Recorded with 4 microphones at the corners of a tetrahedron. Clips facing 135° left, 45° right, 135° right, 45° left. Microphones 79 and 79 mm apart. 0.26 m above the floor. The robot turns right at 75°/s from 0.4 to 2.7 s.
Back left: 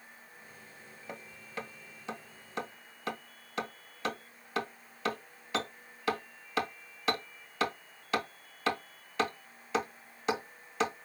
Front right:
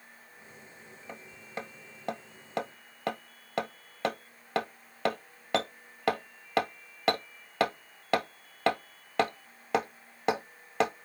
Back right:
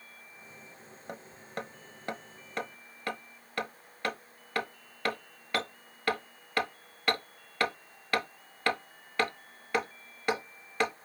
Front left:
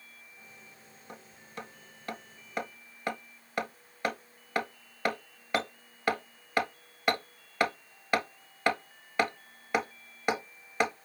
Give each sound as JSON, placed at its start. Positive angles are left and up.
{"t": 1.1, "sound": "hammering", "azimuth_deg": -150, "distance_m": 1.0}